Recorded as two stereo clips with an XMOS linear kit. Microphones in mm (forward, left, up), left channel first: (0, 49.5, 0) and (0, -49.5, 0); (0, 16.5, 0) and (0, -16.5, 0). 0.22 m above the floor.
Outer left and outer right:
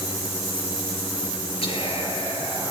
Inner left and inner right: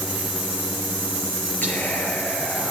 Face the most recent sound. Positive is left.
turn(degrees=70)  # may be behind; listen again after turning